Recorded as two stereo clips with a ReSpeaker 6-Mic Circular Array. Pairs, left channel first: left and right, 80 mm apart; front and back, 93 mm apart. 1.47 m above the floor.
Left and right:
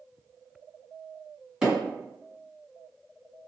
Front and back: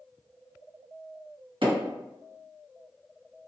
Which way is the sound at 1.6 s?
170° right.